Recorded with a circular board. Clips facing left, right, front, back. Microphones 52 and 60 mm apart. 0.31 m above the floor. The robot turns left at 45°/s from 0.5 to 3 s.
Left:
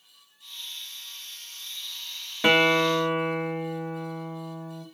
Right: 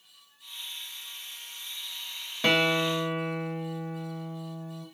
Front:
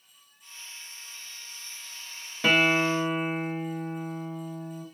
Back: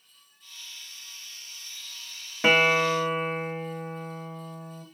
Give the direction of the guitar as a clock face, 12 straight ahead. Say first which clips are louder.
Left 4 dB, back 2 dB; 7 o'clock.